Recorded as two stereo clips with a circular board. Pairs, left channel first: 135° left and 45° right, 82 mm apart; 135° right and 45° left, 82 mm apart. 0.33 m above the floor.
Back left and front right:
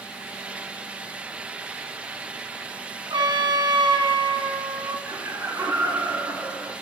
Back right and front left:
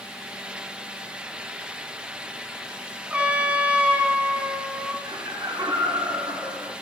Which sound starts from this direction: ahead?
Laughter, at 5.0 s.